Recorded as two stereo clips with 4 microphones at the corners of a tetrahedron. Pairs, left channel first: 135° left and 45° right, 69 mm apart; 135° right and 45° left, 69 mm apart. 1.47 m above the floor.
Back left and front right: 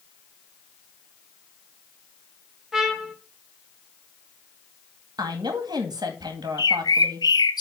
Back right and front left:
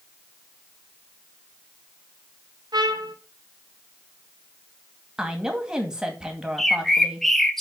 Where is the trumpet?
40° left, 1.0 m.